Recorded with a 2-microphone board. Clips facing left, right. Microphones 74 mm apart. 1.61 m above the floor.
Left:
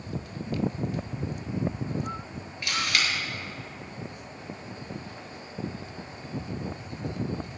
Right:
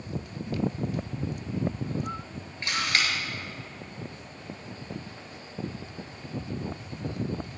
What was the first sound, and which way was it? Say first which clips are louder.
A camera shutter: right 1 dB; 35° right (ahead or behind).